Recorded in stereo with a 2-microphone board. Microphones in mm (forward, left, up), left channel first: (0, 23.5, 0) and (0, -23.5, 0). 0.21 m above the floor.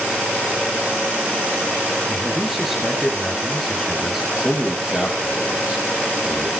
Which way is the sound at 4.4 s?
15° right (ahead or behind).